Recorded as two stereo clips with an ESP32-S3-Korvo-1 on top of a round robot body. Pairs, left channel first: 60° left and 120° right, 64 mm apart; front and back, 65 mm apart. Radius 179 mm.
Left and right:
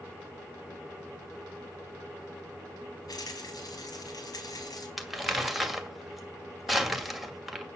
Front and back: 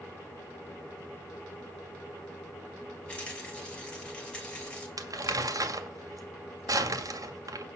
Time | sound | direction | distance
3.1 | a rattle | 75° left | 5 m
5.0 | crumpling | 150° left | 2 m